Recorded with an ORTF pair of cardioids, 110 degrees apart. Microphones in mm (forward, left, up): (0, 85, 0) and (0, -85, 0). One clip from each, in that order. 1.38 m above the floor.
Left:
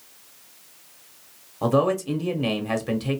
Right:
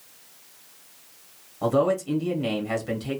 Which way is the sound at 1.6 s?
25° left.